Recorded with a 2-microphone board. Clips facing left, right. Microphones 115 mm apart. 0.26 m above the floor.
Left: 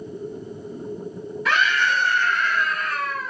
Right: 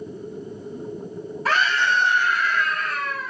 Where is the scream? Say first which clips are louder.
Even; 40° right (ahead or behind), 1.3 m; by 3.3 s 20° left (ahead or behind), 1.6 m.